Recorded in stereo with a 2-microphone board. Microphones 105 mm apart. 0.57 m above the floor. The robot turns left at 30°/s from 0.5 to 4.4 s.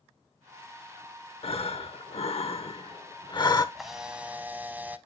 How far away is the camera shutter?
About 0.6 m.